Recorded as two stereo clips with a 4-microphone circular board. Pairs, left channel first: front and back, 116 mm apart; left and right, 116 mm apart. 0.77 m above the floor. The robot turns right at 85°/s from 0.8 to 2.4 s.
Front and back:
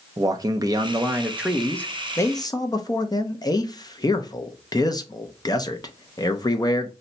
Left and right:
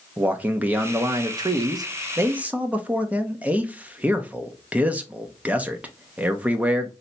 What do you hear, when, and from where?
0.2 s a man speaking: 155° right, 0.5 m; by 6.9 s 20° right, 0.5 m